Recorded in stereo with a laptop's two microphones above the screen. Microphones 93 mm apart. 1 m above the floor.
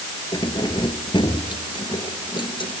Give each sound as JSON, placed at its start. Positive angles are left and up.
{"t": 0.3, "sound": "keys jangling", "side_deg": 55}